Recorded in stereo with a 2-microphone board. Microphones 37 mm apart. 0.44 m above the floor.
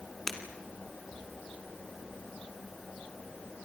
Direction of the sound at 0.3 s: 10° left (ahead or behind).